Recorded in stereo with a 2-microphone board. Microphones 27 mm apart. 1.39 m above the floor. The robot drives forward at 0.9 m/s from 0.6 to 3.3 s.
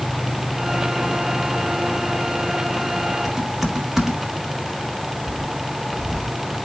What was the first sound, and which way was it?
Typing on a keyboard, 15° right (ahead or behind).